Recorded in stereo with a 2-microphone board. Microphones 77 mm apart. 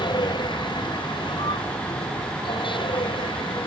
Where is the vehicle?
65° left (ahead or behind); by 3.7 s 80° left.